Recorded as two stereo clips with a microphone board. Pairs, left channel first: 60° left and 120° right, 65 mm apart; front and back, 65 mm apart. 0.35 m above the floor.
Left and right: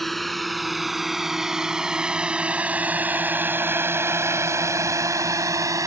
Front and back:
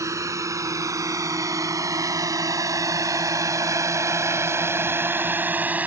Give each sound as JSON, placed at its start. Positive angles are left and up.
{"t": 0.0, "sound": "a drone", "azimuth_deg": 150}